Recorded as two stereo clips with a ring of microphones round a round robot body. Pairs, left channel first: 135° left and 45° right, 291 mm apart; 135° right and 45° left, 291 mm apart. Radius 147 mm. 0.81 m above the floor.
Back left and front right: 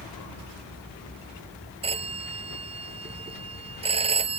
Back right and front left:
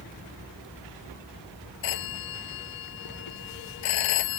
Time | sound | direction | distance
1.8 | a phone ringing | 115° right | ?